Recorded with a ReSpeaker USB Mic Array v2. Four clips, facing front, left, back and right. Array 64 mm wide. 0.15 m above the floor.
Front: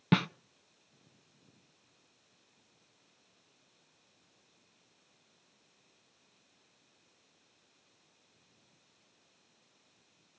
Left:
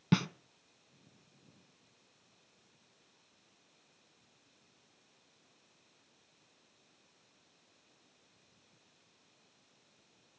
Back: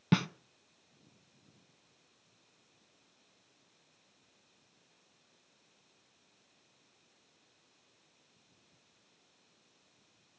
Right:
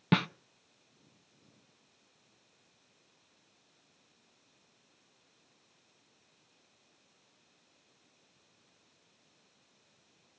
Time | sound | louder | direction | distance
0.1 | a snare drum | right 2 dB, front 1 dB | 55° right | 0.5 m